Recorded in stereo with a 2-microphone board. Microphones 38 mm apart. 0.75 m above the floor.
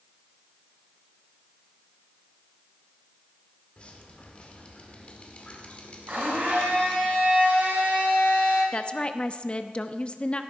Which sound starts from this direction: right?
A blender, at 6.1 s.